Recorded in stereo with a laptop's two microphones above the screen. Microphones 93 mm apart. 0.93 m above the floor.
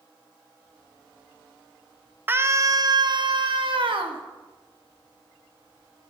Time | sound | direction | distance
2.3 | a scream | 20° right (ahead or behind) | 0.6 m